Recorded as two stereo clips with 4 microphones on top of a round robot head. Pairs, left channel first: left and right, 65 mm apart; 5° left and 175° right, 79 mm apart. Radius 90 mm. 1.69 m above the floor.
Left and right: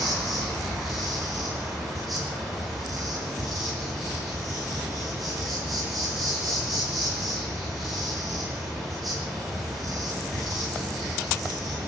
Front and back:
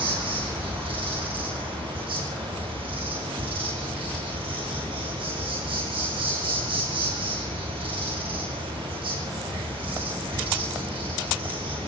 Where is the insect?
Straight behind, 9 m.